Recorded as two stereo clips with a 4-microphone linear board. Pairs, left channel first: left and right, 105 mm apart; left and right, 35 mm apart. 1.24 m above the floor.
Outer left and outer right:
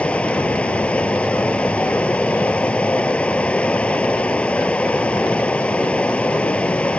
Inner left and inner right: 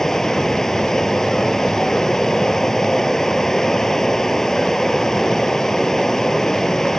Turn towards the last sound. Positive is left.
turn(degrees=10)  # may be behind; listen again after turning